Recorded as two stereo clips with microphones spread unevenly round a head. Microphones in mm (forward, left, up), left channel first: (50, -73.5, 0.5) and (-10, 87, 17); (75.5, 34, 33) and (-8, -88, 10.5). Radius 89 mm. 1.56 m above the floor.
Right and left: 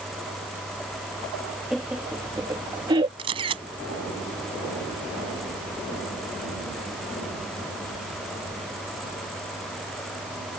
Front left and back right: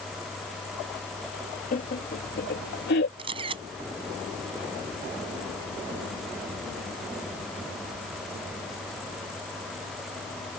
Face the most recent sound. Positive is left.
turn(degrees=170)